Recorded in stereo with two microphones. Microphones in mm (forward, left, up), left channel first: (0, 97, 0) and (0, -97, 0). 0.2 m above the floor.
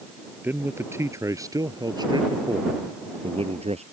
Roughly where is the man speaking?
Centre.